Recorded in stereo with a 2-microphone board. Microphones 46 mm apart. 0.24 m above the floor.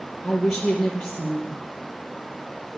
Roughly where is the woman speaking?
Centre.